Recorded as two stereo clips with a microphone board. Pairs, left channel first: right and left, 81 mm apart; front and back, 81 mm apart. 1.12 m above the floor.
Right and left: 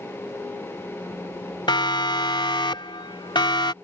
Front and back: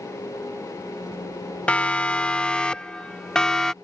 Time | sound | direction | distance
1.7 | a siren | 75° right | ?